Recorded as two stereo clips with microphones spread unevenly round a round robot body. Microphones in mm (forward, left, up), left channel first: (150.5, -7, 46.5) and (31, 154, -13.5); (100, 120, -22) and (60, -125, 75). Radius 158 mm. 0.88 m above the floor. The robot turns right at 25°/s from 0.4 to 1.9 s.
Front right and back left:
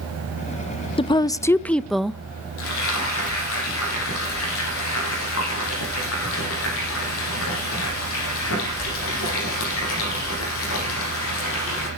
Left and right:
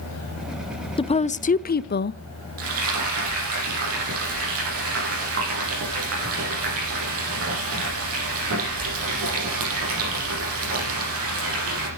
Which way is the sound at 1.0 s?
20° left.